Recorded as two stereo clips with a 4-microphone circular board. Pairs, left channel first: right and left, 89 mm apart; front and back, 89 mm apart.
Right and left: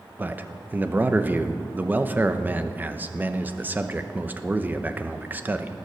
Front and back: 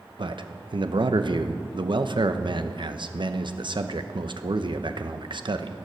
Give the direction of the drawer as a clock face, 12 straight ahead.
No drawer in this recording.